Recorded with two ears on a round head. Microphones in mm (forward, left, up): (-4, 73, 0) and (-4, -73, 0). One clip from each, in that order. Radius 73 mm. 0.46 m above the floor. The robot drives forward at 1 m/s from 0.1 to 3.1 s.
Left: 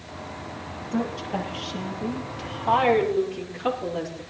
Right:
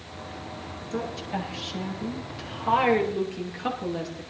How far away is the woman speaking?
About 7 m.